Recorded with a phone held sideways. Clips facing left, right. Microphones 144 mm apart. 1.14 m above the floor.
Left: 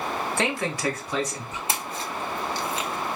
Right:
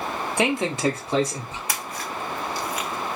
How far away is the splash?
About 0.5 m.